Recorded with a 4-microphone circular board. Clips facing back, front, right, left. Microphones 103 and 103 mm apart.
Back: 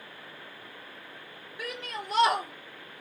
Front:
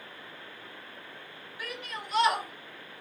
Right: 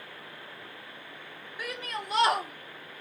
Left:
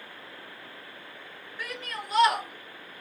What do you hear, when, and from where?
1.6 s a shout: 170° right, 0.8 m; by 3.0 s 105° right, 0.5 m